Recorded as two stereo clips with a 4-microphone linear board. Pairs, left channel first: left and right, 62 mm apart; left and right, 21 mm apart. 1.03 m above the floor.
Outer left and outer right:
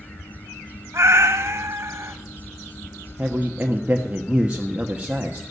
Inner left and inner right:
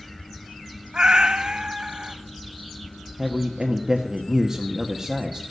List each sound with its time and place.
0.9 s a cat meowing: 50° right (ahead or behind), 1.4 m
3.2 s a man speaking: 20° right (ahead or behind), 1.2 m